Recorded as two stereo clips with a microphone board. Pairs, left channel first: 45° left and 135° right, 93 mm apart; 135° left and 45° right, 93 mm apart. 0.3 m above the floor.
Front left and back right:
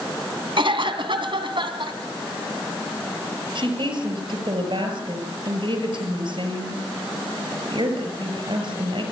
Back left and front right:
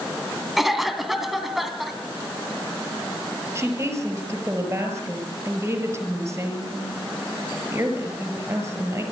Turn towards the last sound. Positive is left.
turn(degrees=-105)